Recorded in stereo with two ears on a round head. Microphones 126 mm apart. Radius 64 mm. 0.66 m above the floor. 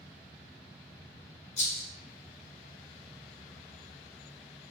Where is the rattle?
45° left (ahead or behind), 1.0 m.